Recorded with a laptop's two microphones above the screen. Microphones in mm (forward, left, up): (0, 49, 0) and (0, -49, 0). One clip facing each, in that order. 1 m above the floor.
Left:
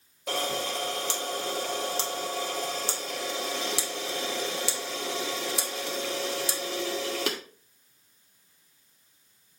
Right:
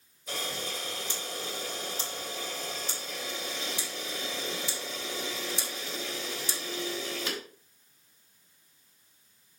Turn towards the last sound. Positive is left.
turn(degrees=80)